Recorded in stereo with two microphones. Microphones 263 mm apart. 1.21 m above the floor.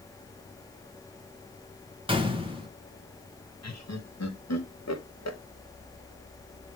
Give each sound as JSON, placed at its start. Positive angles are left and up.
{"t": 2.1, "sound": "a gunshot", "side_deg": -20, "distance_m": 1.3}
{"t": 3.6, "sound": "laughter", "side_deg": 75, "distance_m": 1.7}